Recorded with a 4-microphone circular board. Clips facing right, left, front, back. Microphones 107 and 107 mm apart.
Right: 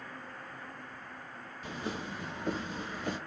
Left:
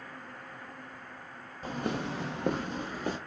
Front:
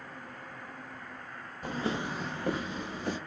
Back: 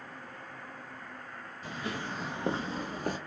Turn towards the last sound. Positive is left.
turn(degrees=140)